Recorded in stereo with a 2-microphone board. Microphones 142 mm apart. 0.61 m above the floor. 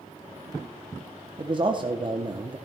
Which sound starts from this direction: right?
A man speaking, at 1.4 s.